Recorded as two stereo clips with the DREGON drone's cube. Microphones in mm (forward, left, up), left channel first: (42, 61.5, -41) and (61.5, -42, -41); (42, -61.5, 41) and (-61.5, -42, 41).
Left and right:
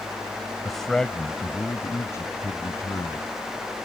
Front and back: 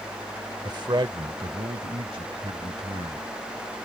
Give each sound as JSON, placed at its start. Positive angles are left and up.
{"t": 0.6, "sound": "a man speaking", "azimuth_deg": -165}